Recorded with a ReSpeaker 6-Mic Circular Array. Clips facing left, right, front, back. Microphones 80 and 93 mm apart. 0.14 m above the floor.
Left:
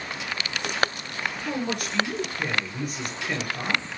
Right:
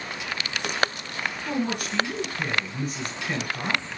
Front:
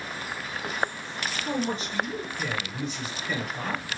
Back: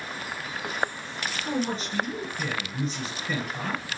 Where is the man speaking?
160° right, 1.9 m.